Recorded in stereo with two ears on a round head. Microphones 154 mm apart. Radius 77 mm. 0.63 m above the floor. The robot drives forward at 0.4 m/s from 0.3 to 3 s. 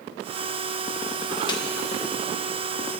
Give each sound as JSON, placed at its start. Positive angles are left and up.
{"t": 1.5, "sound": "a snare drum", "side_deg": 25, "distance_m": 1.1}